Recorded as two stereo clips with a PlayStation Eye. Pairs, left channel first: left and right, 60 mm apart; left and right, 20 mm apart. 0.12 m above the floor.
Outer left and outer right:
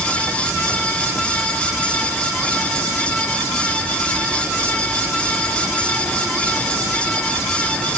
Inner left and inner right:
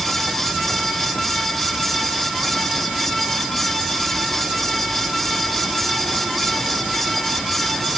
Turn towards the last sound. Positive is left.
No sound to turn to.